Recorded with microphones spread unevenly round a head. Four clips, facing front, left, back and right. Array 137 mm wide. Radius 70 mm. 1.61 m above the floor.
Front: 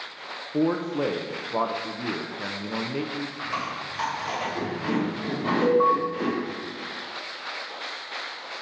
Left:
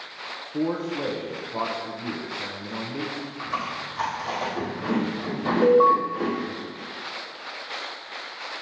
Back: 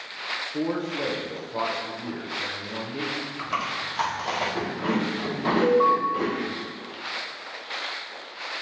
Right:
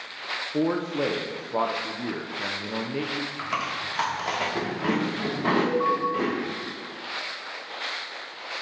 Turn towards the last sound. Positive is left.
turn(degrees=85)